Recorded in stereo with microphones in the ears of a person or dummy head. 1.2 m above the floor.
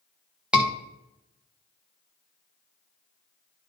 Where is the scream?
Centre (ahead or behind), 1.6 m.